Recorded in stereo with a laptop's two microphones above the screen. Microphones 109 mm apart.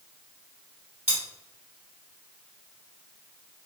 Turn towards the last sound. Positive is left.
turn(degrees=-80)